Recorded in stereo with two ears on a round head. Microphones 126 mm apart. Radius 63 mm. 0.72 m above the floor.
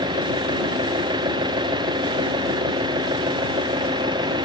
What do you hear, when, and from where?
0.0 s an engine running: 30° right (ahead or behind)